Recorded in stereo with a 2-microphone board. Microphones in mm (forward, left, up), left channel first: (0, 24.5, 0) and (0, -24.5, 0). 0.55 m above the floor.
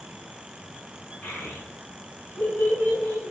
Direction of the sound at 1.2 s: 25° left (ahead or behind).